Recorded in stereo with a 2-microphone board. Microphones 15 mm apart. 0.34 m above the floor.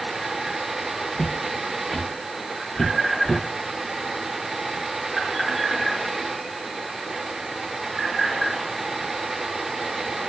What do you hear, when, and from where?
1.1 s footsteps: 55° left (ahead or behind), 2.5 m; by 3.4 s 30° left (ahead or behind), 1.7 m